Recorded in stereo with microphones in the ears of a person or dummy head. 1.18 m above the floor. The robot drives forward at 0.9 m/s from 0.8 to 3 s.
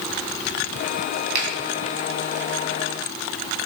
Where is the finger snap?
55° right (ahead or behind), 3 m.